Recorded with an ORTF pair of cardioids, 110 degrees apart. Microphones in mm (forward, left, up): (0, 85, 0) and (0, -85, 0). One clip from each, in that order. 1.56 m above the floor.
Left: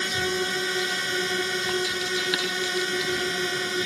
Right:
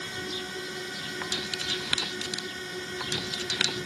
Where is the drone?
55° left.